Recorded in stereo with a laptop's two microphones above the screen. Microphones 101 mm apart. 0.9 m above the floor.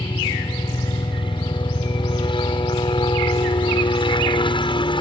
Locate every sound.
0.0 s a helicopter: 55° left (ahead or behind)